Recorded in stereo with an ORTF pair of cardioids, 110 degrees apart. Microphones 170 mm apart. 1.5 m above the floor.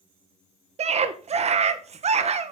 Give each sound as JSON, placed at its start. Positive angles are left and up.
{"t": 0.8, "sound": "a scream", "azimuth_deg": -40, "distance_m": 1.5}